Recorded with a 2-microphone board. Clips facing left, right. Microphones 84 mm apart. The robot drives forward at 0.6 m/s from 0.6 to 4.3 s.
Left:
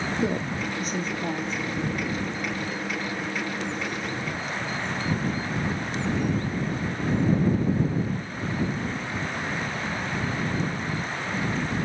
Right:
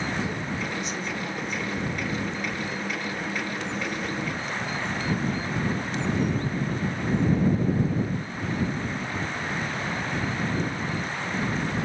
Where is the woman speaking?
50° left (ahead or behind), 1.3 m; by 1.6 s 35° left (ahead or behind), 1.6 m.